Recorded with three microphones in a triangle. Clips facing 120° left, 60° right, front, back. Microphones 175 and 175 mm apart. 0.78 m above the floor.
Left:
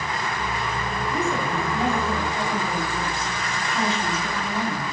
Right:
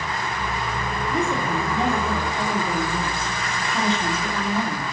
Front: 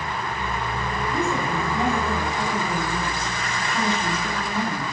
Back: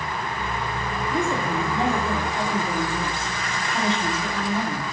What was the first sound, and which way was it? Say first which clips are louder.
A woman speaking: right 2 dB, back 1 dB; 120° right.